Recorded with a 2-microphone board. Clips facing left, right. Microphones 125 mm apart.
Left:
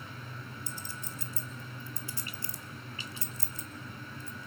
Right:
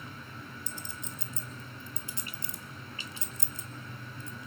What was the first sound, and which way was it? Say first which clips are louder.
A clink: even; 20° right (ahead or behind).